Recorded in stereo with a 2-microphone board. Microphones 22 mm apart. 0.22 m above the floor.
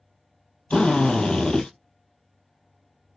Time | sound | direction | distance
0.7 | a drill | 80° left | 3.5 m